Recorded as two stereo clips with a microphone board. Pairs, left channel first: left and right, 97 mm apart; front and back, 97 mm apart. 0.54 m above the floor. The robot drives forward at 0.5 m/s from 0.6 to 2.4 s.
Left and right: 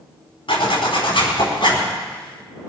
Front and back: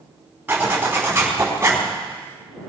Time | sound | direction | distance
0.5 | a zipper | 110° left | 4.5 m